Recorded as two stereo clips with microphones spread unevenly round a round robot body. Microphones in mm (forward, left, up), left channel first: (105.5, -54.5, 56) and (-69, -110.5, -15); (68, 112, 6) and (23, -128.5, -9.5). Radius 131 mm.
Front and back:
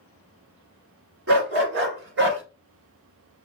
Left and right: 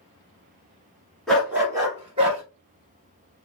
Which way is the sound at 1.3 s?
170° left.